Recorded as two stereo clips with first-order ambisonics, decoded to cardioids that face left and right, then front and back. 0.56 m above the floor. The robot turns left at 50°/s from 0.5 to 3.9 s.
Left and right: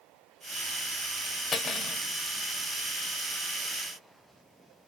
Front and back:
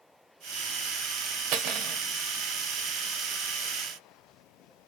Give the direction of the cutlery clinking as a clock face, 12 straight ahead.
7 o'clock.